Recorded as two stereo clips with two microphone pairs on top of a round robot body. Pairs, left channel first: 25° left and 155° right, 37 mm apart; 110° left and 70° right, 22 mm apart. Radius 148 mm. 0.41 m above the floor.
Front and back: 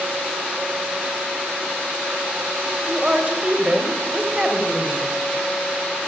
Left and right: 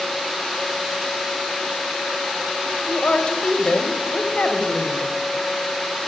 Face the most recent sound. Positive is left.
turn(degrees=140)